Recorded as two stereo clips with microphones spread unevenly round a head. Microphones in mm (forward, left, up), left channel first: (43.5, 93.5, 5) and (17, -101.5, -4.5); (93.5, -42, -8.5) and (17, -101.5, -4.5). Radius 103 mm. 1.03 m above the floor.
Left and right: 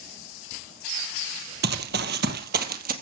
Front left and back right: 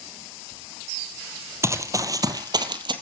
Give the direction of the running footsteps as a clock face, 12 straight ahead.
3 o'clock.